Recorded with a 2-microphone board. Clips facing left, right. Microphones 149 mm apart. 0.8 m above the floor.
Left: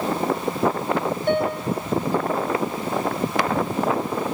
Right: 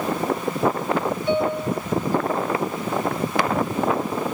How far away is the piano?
About 3.5 m.